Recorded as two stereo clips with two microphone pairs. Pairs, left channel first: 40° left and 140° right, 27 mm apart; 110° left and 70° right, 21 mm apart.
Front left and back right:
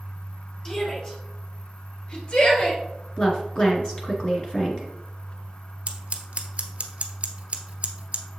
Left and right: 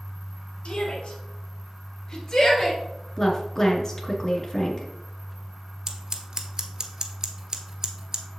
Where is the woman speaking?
70° left, 1.9 m.